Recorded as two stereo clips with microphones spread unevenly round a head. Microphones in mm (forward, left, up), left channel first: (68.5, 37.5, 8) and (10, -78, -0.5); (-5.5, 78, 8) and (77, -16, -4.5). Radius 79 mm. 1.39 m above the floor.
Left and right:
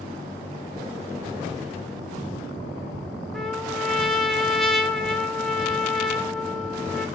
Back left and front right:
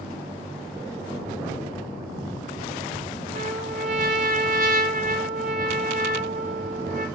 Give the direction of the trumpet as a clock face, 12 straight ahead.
1 o'clock.